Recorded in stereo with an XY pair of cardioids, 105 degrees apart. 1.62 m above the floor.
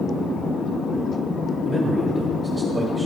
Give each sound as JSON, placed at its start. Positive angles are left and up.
{"t": 1.6, "sound": "a man speaking", "azimuth_deg": -25, "distance_m": 1.8}